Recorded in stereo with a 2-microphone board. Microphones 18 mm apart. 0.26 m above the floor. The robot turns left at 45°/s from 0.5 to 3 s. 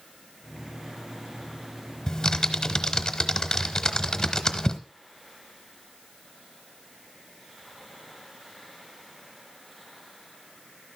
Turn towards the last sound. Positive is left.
turn(degrees=30)  # may be behind; listen again after turning